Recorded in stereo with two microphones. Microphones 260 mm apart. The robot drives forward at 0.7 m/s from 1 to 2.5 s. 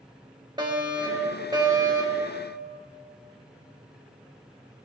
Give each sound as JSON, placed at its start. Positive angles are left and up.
{"t": 0.6, "sound": "a fire alarm", "side_deg": -15, "distance_m": 4.0}